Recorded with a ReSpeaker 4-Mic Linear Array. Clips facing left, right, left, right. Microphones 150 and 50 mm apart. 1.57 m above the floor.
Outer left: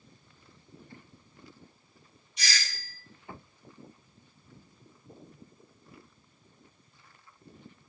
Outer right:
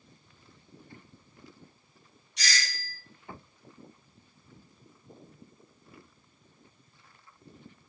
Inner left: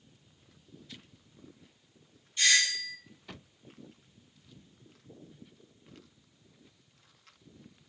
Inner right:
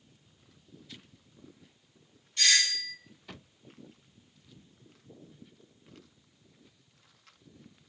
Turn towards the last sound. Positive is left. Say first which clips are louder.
# outer right 2 dB, inner left 1 dB
turn(degrees=-75)  # may be behind; listen again after turning